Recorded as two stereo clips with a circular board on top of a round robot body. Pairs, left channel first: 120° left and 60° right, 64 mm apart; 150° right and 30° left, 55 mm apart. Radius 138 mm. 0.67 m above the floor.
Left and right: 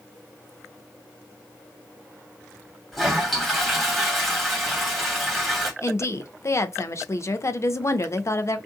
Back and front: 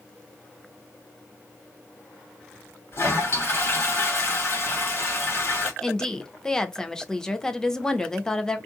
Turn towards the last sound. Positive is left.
turn(degrees=135)